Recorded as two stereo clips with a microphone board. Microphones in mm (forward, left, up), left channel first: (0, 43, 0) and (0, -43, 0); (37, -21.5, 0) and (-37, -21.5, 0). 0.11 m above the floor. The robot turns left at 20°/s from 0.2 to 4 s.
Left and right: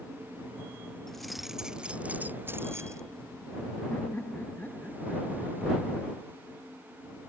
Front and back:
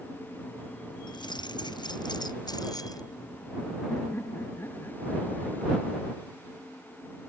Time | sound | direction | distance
1.1 | keys jangling | 5° left | ?
3.9 | laughter | 35° left | ?